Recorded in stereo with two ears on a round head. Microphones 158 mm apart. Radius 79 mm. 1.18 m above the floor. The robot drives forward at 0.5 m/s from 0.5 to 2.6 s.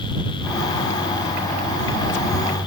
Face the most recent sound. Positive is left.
No sound to turn to.